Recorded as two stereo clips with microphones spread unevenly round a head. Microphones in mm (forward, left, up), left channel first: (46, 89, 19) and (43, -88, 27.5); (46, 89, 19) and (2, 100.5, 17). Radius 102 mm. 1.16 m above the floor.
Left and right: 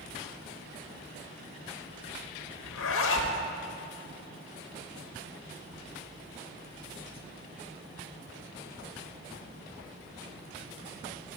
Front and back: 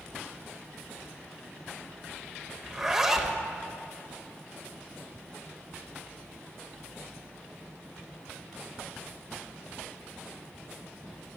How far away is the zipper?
About 0.8 m.